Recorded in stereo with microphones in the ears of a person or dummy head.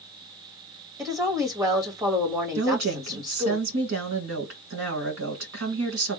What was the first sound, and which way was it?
A woman speaking, 25° right (ahead or behind).